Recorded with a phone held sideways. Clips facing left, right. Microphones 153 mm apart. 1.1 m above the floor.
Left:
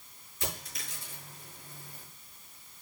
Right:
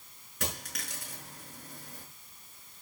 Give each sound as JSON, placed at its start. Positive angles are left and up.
{"t": 0.4, "sound": "a dropped coin", "side_deg": -75, "distance_m": 6.0}